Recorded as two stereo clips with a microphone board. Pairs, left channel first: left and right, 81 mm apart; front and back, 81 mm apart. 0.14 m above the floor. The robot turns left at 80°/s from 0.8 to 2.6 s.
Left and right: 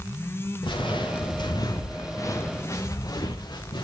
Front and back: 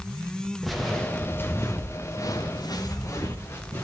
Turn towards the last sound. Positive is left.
turn(degrees=65)